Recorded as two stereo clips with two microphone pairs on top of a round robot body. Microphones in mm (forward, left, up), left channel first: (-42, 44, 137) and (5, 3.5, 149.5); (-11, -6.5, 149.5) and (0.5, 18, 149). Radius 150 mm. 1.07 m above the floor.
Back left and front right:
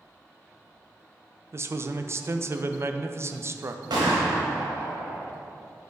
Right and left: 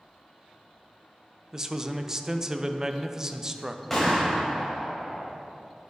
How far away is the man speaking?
About 0.5 m.